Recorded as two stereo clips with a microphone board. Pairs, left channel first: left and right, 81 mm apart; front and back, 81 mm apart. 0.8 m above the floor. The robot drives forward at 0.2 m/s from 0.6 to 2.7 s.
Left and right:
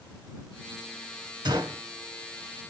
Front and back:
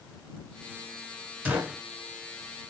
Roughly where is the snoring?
I don't hear snoring.